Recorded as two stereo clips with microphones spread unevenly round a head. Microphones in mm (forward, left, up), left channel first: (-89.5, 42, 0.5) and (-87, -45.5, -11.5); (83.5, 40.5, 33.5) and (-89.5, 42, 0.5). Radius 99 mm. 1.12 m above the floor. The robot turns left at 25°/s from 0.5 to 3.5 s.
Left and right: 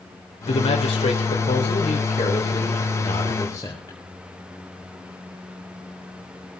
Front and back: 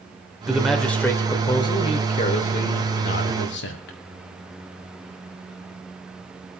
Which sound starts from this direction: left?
A man speaking, at 0.5 s.